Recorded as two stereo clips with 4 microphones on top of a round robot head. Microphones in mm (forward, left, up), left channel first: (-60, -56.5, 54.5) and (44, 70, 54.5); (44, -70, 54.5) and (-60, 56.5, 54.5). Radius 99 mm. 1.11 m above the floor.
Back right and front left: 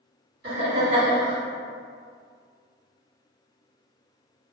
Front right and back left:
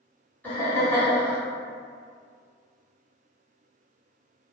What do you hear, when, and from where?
0.4 s laughter: 25° left, 1.5 m